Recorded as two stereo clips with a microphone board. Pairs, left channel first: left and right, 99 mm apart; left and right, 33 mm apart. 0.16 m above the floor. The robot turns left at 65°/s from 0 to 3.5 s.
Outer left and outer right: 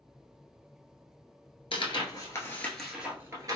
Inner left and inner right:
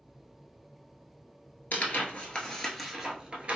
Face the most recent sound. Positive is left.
turn(degrees=-40)  # may be behind; listen again after turning